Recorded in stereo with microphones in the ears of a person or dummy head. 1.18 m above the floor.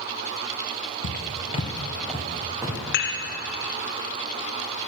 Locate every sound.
1.0 s footsteps: 45° left (ahead or behind), 1.6 m; by 2.8 s 15° right (ahead or behind), 2.5 m
2.9 s dishes clattering: 55° left (ahead or behind), 1.7 m